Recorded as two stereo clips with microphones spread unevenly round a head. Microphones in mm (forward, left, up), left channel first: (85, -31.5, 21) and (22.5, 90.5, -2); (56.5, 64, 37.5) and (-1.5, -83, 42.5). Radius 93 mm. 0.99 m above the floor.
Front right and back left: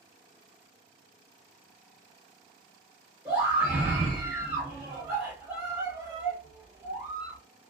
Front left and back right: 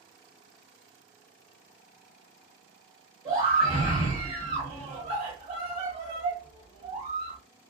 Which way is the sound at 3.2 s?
165° right.